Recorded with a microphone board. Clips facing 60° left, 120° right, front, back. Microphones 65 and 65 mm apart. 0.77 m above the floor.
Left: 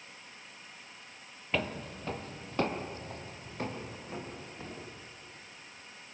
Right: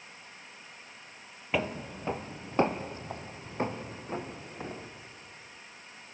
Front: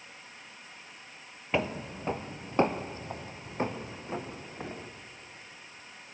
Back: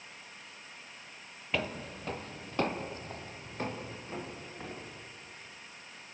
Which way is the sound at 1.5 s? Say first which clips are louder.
Right 2 dB, front 4 dB; 50° right.